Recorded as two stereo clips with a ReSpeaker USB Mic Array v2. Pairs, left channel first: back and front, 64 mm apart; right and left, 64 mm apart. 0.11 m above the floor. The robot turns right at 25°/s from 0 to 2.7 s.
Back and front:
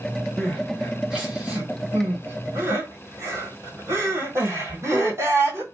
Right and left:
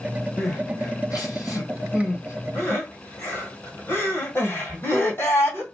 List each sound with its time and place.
0.4 s crying: 100° right, 1.7 m; by 5.6 s 40° right, 1.7 m